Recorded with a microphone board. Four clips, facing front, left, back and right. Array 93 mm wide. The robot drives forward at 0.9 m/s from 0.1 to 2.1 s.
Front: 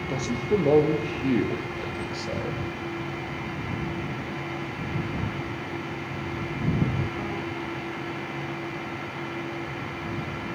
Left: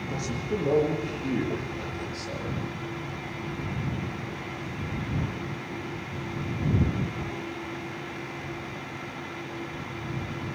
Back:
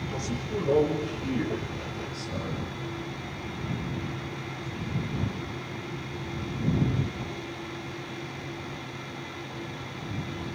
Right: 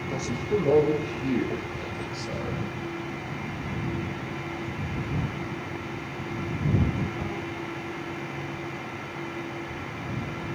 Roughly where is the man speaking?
Ahead.